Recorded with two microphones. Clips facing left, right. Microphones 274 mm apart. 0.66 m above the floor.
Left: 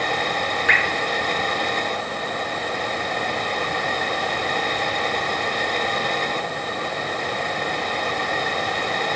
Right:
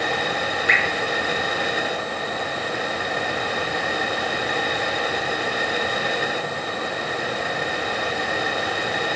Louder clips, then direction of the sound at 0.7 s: Even; 65° left (ahead or behind).